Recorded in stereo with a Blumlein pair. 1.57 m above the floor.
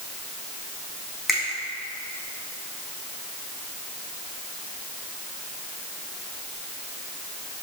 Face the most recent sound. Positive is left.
turn(degrees=0)